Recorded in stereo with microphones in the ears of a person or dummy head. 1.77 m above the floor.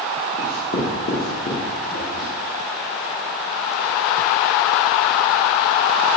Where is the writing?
55° left (ahead or behind), 0.9 m.